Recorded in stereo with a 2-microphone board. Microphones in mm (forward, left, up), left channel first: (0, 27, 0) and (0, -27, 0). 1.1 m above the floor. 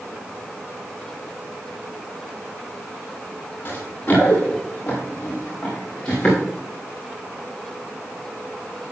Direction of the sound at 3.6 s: 35° left (ahead or behind).